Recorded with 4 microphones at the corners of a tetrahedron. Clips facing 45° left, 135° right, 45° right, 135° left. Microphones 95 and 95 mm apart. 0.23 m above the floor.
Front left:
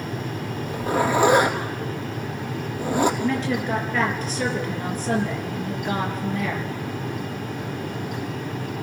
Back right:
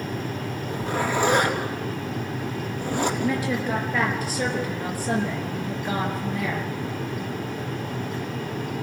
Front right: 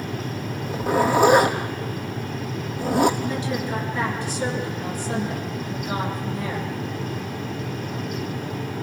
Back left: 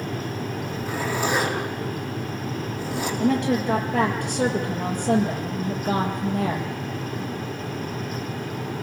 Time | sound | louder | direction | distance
0.7 | a zipper | front left 4 dB, front right 11 dB | 30° right | 3.5 m
3.2 | a woman speaking | front left 1 dB, back left 5 dB | 145° left | 4.5 m